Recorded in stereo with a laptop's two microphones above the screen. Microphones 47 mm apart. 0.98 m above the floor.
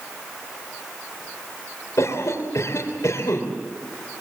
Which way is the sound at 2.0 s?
80° left.